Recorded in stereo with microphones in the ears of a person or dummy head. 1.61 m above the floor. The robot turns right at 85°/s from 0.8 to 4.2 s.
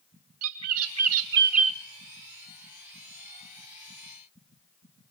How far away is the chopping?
I don't hear chopping.